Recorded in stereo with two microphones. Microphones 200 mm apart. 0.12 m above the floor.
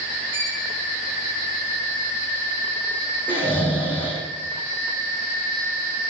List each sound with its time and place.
0.3 s a violin: 15° left (ahead or behind), 10 m
3.3 s snoring: 10° left (ahead or behind), 7 m